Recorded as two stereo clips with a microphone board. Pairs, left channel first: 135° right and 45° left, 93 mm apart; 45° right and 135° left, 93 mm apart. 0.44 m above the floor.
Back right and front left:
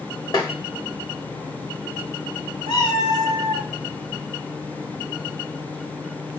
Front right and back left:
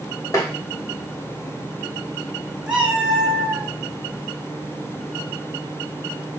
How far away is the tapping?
About 0.7 m.